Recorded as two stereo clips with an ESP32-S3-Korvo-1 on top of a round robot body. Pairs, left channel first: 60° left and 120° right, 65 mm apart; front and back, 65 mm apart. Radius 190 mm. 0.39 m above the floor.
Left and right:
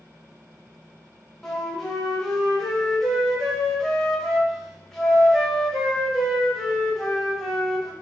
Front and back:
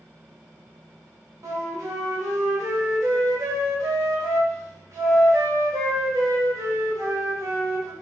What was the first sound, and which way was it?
A flute, 145° left.